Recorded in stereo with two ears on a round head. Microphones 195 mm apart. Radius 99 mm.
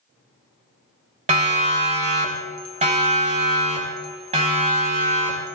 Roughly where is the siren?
Right.